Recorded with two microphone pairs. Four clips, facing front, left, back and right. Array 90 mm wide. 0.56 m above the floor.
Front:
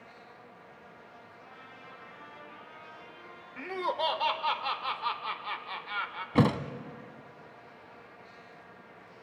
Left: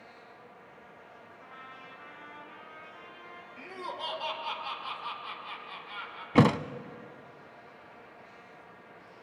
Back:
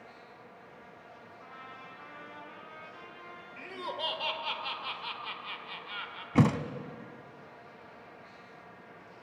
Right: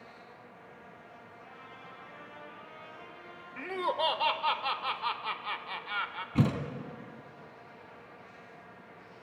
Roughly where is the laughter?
Ahead right.